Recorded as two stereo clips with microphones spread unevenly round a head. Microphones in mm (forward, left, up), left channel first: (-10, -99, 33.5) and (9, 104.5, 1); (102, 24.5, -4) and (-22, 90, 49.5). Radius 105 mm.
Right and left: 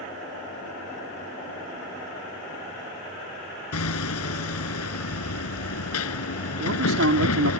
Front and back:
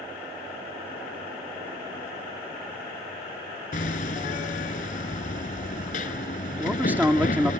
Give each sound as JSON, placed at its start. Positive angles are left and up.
{"t": 3.7, "sound": "hammering", "azimuth_deg": -75}
{"t": 6.6, "sound": "a man speaking", "azimuth_deg": 70}